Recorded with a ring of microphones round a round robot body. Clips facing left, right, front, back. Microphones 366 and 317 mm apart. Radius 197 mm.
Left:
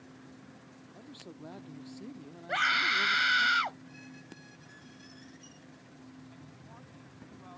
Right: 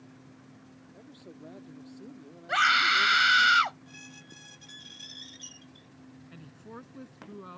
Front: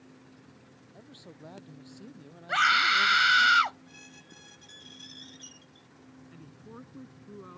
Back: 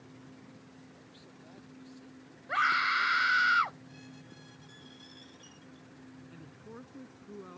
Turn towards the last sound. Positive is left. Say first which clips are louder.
# right 6 dB, front 4 dB
turn(degrees=-85)